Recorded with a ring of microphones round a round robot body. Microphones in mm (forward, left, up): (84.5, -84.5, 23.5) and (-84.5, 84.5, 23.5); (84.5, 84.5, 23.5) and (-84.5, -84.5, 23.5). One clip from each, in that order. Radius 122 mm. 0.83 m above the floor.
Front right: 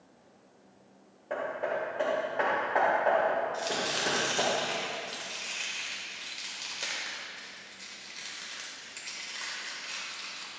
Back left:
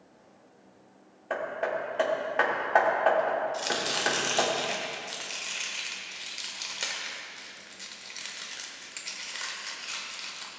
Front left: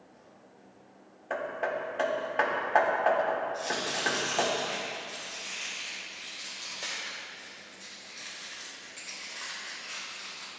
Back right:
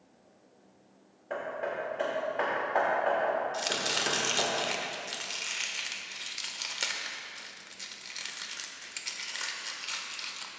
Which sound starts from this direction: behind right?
Chopping, at 3.5 s.